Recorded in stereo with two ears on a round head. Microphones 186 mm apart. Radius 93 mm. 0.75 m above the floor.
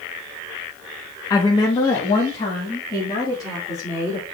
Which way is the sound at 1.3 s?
20° left (ahead or behind).